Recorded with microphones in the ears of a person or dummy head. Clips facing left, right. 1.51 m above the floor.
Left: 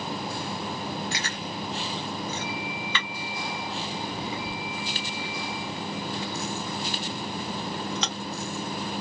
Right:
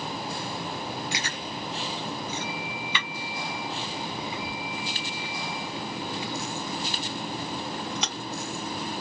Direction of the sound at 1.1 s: 15° right (ahead or behind).